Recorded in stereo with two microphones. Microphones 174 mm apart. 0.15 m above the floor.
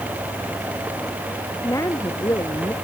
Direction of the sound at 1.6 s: 20° left (ahead or behind).